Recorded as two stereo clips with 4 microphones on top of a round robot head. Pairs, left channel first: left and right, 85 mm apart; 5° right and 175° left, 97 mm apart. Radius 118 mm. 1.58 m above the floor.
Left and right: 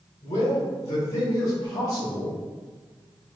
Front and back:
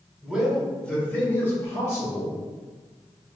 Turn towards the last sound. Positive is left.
turn(degrees=45)